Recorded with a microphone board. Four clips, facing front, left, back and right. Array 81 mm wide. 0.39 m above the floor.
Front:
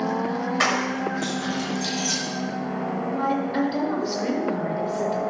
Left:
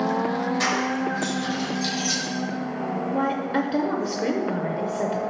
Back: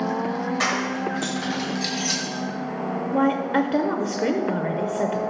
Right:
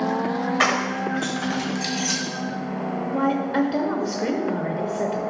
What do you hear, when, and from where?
0.6 s keys jangling: 75° right, 1.1 m; by 2.2 s 125° right, 2 m
3.1 s a woman speaking: straight behind, 0.9 m